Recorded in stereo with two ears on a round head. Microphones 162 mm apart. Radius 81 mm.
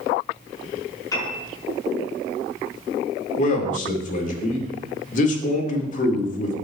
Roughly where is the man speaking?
Left.